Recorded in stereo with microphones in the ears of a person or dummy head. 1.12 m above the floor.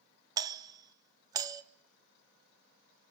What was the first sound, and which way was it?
A doorbell, 20° right (ahead or behind).